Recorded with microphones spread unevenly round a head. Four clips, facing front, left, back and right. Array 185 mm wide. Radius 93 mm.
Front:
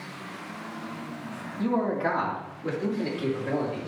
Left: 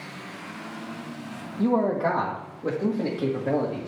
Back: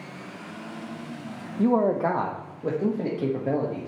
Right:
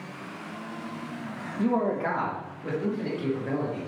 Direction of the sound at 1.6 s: 175° left.